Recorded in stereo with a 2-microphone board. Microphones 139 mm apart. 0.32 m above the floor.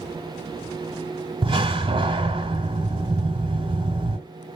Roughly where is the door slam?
Right.